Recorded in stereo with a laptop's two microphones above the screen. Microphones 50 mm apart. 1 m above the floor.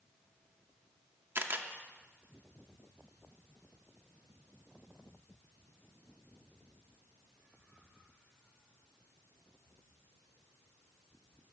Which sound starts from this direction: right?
A camera shutter, at 1.4 s.